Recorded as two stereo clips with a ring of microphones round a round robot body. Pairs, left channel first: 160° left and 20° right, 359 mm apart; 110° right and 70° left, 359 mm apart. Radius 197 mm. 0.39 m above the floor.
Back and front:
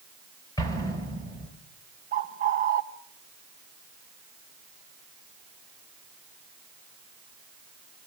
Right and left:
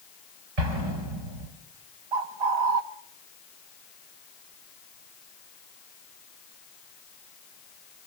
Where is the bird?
45° left, 0.9 m.